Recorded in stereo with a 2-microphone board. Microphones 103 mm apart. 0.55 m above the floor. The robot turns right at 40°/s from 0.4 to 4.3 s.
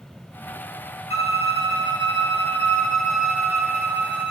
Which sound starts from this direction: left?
A violin, at 1.1 s.